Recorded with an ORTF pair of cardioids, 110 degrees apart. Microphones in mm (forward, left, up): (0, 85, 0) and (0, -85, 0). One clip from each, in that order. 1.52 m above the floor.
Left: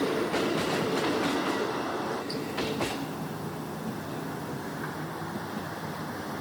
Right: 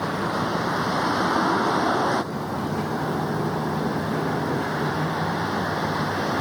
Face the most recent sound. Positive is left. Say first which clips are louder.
# right 2 dB
turn(degrees=-65)